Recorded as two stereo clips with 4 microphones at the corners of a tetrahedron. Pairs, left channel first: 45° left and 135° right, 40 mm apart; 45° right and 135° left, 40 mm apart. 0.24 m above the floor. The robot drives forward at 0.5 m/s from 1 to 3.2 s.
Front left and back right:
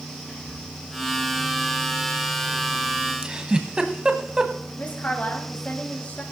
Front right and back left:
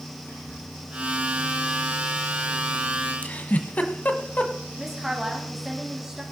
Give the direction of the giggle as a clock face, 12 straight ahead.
3 o'clock.